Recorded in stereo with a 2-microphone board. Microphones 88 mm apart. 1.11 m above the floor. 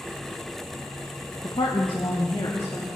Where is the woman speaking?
75° left (ahead or behind), 0.9 m; by 2.9 s 50° left (ahead or behind), 2.5 m.